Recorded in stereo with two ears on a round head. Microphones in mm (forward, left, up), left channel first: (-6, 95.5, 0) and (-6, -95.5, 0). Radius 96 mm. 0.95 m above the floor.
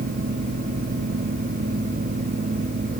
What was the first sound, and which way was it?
Only background noise.